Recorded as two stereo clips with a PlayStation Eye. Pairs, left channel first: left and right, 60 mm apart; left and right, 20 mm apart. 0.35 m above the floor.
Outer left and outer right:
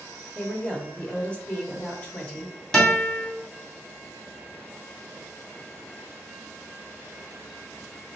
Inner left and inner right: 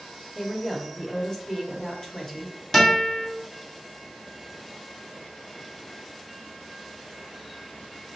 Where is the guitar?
10° left (ahead or behind), 1.7 m.